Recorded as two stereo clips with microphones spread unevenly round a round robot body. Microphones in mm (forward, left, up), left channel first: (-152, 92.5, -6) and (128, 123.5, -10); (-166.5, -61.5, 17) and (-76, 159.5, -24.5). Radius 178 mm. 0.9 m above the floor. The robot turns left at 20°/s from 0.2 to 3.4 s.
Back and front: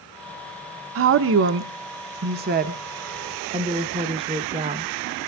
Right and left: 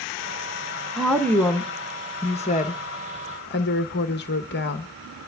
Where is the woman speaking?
10° right, 0.6 m; by 4.9 s 60° right, 0.6 m.